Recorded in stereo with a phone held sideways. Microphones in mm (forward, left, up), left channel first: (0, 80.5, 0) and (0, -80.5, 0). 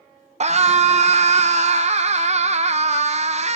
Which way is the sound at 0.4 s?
45° right (ahead or behind).